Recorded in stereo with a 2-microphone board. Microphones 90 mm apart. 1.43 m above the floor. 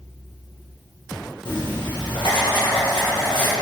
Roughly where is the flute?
No flute in this recording.